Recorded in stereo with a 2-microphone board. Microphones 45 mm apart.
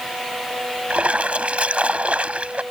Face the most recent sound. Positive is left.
turn(degrees=-30)  # may be behind; listen again after turning